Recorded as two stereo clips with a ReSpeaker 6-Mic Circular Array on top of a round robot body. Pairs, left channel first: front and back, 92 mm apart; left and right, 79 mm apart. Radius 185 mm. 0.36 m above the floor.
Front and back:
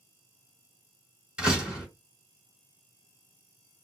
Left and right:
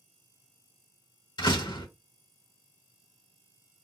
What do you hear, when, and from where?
1.4 s a door slam: 100° left, 2 m